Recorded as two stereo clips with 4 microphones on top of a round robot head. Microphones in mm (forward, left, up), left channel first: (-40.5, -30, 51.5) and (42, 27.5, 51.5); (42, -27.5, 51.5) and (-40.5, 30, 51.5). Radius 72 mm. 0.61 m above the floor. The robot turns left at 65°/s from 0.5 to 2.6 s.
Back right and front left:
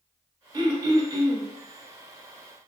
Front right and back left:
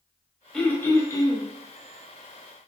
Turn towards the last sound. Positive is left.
turn(degrees=-95)